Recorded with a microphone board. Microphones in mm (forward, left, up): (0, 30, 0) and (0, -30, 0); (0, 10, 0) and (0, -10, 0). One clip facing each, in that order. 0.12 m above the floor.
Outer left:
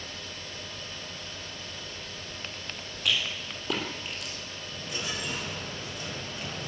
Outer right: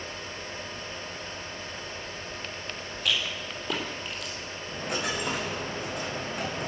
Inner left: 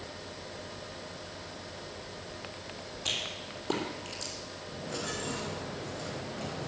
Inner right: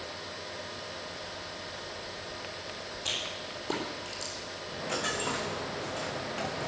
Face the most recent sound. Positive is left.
turn(degrees=-65)  # may be behind; listen again after turning